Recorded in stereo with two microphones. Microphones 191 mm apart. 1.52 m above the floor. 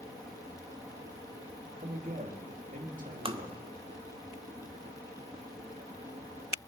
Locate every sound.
1.8 s a man speaking: 45° right (ahead or behind), 2.5 m
3.2 s tapping: 25° right (ahead or behind), 0.9 m